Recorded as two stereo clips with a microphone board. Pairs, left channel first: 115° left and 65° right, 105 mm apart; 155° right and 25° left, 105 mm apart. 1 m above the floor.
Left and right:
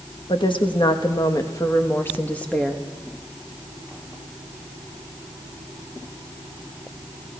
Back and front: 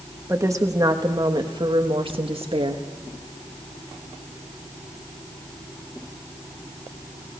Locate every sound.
0.3 s a woman speaking: 85° left, 1.5 m; by 2.9 s 30° left, 1.5 m